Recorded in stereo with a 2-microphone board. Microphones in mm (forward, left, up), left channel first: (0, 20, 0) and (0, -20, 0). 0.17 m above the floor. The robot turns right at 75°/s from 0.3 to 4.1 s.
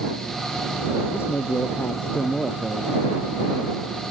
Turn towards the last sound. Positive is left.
turn(degrees=-55)